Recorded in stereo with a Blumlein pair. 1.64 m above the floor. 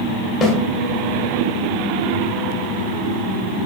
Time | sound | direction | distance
0.4 | a snare drum | 25° left | 0.6 m